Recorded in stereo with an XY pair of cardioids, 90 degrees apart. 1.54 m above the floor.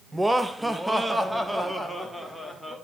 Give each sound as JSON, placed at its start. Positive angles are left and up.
{"t": 0.1, "sound": "laughter", "azimuth_deg": -10, "distance_m": 1.4}